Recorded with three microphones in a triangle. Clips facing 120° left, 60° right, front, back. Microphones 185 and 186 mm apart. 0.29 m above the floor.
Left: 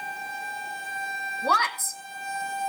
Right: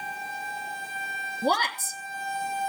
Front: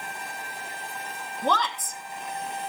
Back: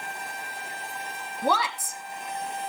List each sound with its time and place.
1.4 s a woman speaking: 105° right, 1.2 m